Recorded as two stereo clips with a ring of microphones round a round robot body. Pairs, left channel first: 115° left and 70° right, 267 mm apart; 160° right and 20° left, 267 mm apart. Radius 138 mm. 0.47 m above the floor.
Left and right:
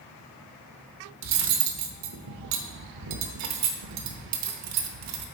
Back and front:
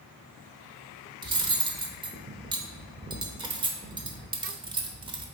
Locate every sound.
1.2 s cutlery clinking: 50° right, 0.8 m